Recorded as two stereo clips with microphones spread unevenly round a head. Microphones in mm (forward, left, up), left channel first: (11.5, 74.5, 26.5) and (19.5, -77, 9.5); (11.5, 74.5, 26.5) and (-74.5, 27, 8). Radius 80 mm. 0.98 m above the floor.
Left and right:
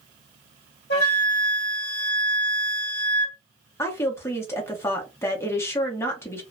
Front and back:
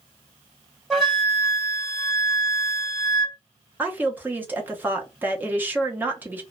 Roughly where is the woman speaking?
Behind.